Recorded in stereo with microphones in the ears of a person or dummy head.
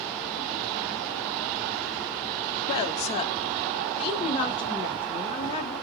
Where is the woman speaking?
35° left (ahead or behind), 0.6 m.